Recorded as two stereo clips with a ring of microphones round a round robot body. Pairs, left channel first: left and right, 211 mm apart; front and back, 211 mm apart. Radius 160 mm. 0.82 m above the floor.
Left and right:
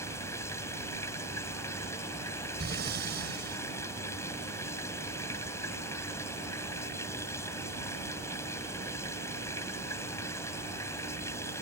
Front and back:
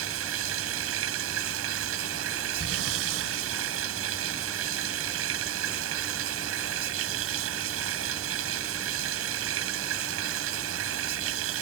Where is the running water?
170° left.